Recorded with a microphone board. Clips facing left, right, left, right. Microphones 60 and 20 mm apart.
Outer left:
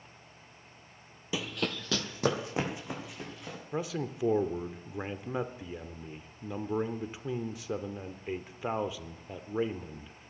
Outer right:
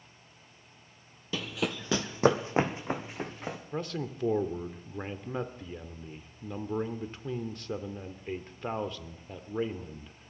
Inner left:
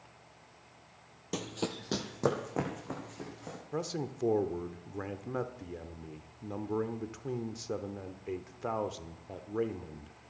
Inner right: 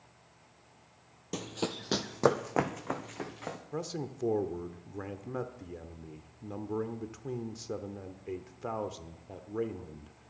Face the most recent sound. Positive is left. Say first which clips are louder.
# outer left 3 dB, inner left 3 dB
turn(degrees=5)  # may be behind; listen again after turning